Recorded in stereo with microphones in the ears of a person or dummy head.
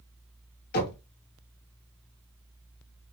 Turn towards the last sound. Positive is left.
turn(degrees=55)  # may be behind; listen again after turning